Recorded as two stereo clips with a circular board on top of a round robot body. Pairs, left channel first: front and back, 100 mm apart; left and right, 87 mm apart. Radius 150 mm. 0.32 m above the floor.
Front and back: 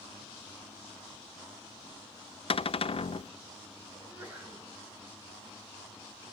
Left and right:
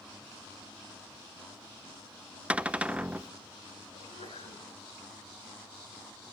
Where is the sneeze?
100° left, 8 m.